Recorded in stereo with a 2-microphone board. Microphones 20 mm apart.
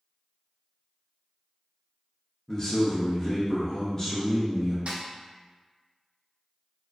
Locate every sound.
2.5 s a man speaking: 25° left (ahead or behind), 0.5 m
4.9 s a snare drum: 65° right (ahead or behind), 0.5 m